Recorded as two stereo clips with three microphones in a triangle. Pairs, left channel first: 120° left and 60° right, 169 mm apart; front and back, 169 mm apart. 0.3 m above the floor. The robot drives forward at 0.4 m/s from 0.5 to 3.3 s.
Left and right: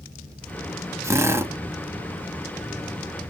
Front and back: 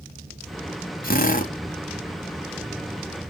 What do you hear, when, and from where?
1.0 s a drill: 10° left, 1.1 m